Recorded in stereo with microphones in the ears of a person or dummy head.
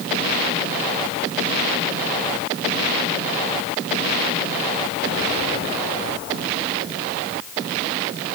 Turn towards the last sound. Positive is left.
No sound to turn to.